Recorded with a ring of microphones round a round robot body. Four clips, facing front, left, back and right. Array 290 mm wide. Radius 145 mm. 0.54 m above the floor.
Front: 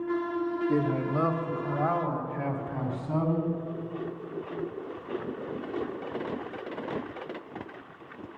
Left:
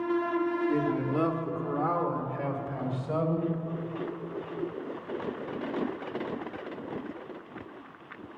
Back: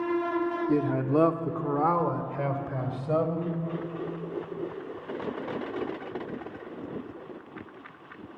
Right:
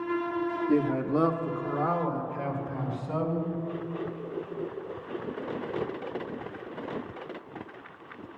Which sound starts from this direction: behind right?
A man speaking, at 0.7 s.